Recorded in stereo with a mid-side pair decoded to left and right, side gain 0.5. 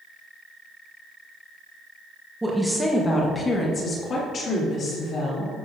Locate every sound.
2.4 s a woman speaking: 10° right, 1.3 m; by 5.5 s 55° left, 4.5 m